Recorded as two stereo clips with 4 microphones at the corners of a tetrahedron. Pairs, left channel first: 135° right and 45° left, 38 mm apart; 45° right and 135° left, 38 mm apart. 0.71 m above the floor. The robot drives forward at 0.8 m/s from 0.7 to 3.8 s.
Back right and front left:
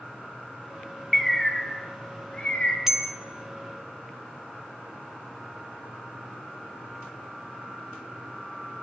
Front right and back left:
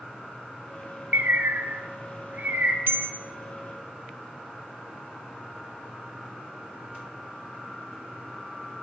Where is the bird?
135° left, 0.7 m; by 2.8 s 165° left, 1.8 m.